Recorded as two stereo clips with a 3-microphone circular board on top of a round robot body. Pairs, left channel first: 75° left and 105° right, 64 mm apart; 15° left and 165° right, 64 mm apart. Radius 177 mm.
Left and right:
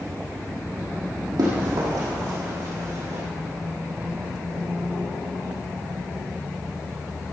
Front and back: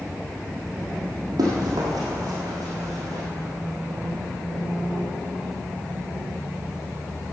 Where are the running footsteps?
135° right, 2.5 m.